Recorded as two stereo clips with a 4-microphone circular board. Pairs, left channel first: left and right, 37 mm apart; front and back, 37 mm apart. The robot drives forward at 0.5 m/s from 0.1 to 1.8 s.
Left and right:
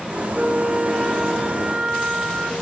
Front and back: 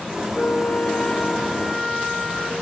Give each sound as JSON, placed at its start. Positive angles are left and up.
{"t": 0.3, "sound": "a flute", "azimuth_deg": -20, "distance_m": 1.0}